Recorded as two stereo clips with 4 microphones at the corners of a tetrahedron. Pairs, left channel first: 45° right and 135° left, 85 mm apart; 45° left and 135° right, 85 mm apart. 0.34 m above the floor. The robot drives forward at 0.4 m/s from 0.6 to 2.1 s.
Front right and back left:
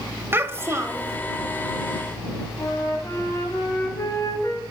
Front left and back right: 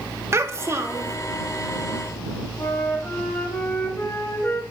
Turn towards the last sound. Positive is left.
turn(degrees=-5)